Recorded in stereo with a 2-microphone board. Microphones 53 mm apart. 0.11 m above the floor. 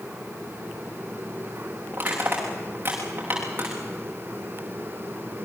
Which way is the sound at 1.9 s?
35° right (ahead or behind).